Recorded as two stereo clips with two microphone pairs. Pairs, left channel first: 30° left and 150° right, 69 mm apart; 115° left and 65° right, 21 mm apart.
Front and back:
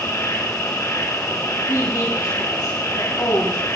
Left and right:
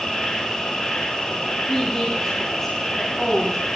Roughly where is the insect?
Left.